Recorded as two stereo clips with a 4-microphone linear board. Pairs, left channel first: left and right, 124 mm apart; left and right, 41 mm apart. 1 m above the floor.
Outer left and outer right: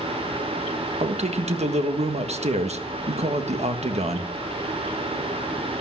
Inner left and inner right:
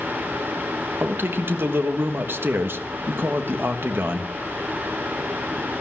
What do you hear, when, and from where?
1.0 s a man speaking: 60° right (ahead or behind), 1.3 m